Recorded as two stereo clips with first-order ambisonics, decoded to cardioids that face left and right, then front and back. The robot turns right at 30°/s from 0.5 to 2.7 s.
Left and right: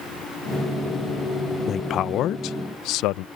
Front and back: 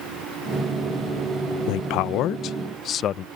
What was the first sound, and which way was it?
A man speaking, 25° left.